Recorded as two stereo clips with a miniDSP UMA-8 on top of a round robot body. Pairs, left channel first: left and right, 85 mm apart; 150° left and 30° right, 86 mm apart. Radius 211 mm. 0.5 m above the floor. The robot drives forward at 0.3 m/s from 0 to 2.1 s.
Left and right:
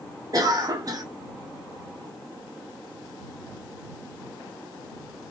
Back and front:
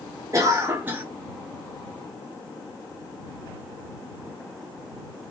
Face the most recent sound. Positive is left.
turn(degrees=-130)